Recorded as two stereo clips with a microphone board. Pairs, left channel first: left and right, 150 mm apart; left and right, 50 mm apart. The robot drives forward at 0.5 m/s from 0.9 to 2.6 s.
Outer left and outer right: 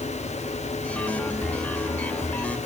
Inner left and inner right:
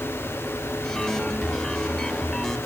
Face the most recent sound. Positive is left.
No sound to turn to.